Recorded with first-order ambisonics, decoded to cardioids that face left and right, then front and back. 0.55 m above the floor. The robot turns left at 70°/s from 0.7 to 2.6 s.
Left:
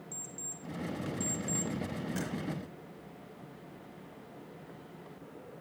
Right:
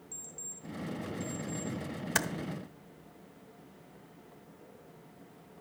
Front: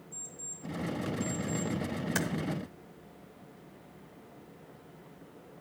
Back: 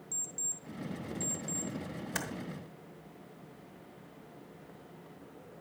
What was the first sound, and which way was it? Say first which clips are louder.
An alarm clock: left 1 dB, back 6 dB; 175° left.